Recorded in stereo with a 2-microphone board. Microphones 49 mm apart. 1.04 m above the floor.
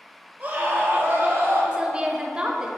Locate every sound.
0.4 s a scream: 30° right (ahead or behind), 1.6 m; by 1.6 s 45° right (ahead or behind), 2 m
1.7 s a woman speaking: 20° right (ahead or behind), 0.8 m